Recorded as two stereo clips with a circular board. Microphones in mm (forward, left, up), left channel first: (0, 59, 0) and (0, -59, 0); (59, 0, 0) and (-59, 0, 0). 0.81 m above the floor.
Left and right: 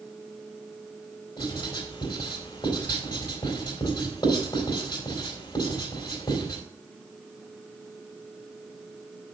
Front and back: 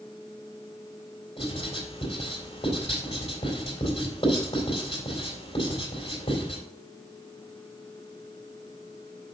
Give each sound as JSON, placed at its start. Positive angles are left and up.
{"t": 1.4, "sound": "writing", "azimuth_deg": 40, "distance_m": 3.0}